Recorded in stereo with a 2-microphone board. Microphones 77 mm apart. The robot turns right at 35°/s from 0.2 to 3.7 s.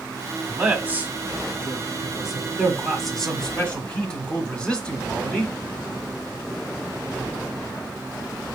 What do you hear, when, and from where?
0.5 s a man speaking: 25° right (ahead or behind), 1.1 m; by 5.5 s 10° left (ahead or behind), 1.1 m